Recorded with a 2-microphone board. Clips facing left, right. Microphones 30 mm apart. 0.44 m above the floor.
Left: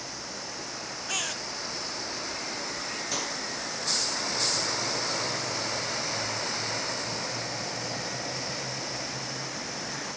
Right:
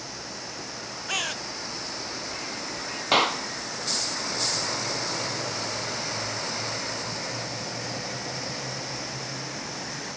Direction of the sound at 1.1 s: 10° right (ahead or behind).